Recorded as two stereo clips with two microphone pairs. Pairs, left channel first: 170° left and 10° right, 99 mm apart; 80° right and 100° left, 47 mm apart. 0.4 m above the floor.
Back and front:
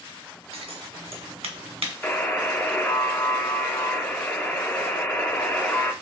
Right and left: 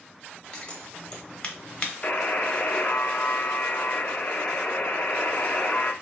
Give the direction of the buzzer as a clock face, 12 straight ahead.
4 o'clock.